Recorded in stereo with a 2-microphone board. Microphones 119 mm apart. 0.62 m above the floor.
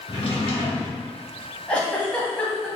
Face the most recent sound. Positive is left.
turn(degrees=10)  # may be behind; listen again after turning